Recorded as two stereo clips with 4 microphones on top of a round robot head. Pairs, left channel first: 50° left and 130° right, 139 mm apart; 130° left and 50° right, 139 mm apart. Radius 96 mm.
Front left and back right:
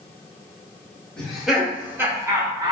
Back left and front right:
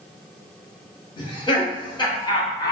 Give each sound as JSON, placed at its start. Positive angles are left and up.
{"t": 1.2, "sound": "laughter", "azimuth_deg": 130, "distance_m": 1.3}